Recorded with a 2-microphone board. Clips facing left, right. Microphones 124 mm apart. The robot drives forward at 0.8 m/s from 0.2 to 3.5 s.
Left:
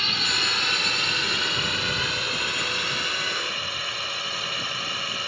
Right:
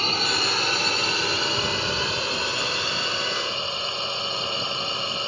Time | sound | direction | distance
0.0 | a drone | 40° right (ahead or behind) | ?